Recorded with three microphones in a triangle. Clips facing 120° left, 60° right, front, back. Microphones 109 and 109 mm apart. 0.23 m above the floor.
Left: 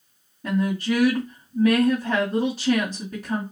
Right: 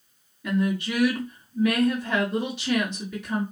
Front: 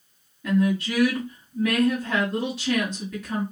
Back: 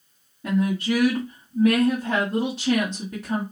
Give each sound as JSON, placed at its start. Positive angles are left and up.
{"t": 0.4, "sound": "a woman speaking", "azimuth_deg": 140, "distance_m": 1.9}